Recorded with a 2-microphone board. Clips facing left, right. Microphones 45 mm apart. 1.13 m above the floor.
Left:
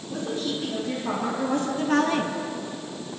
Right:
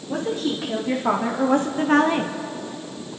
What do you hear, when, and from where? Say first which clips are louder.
0.1 s a woman speaking: right 4 dB; 75° right (ahead or behind), 3 m; by 2.3 s 10° right (ahead or behind), 1.1 m